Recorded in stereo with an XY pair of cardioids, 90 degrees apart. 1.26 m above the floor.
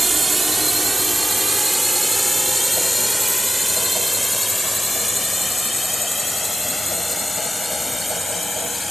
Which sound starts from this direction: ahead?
A drone, at 0.0 s.